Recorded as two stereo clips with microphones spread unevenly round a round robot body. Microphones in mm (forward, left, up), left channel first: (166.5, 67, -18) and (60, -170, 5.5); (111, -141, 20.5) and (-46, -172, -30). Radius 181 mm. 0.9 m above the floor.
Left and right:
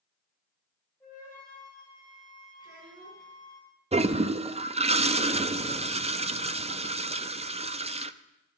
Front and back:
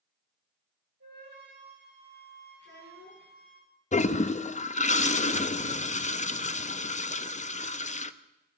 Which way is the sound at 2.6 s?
160° left.